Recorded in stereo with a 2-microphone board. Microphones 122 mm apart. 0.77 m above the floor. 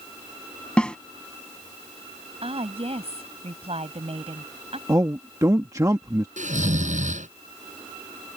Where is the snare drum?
10° left (ahead or behind).